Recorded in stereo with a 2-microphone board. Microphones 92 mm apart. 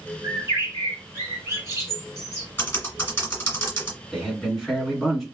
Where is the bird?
30° right (ahead or behind), 1.9 m.